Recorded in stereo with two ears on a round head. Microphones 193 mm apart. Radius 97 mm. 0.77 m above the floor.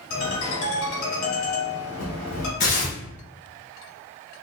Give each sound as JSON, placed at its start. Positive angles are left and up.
{"t": 0.1, "sound": "a ringtone", "side_deg": 60, "distance_m": 1.5}
{"t": 2.6, "sound": "tearing paper", "side_deg": 40, "distance_m": 1.2}